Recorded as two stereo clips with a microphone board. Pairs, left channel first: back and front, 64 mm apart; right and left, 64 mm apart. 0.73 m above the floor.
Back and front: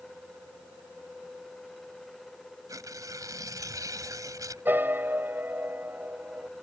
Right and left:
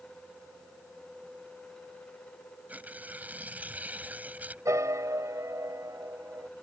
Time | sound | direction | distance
2.7 | tearing paper | 25° left | ?
4.7 | a piano | 60° left | ?